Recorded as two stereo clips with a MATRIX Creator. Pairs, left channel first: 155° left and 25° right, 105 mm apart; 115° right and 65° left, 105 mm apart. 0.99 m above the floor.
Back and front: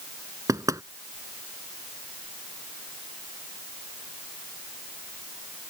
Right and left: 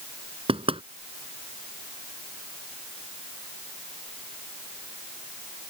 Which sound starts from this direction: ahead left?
Knocking, at 0.5 s.